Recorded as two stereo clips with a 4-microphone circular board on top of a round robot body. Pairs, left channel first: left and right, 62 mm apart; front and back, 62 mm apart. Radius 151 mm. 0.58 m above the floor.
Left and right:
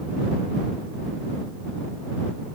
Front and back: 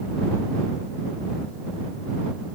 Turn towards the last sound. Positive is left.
No sound to turn to.